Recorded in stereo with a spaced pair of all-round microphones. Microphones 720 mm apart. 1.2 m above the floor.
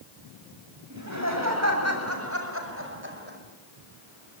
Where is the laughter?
25° right (ahead or behind), 7 m; by 3.4 s 15° right (ahead or behind), 5.5 m.